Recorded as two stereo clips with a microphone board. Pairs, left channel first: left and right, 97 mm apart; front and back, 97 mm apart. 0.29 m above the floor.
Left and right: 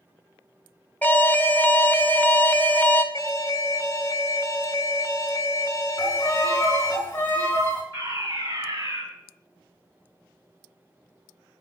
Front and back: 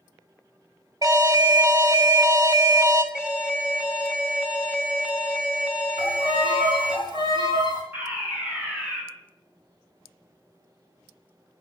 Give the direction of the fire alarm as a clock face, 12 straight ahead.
4 o'clock.